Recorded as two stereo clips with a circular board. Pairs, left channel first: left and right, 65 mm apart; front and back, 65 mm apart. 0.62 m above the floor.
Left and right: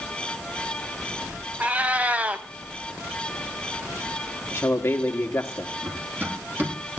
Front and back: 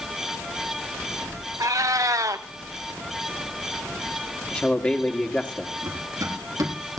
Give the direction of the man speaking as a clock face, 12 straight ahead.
10 o'clock.